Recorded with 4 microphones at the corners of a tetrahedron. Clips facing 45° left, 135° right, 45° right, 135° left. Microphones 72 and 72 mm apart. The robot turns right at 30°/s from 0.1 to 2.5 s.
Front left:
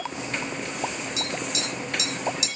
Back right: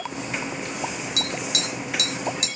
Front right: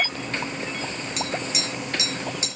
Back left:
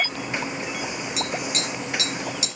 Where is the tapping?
140° right, 1.8 m; by 2.5 s 100° right, 1.8 m.